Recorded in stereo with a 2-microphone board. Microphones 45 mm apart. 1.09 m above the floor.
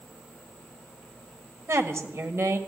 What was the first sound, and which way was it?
A woman speaking, 75° right (ahead or behind).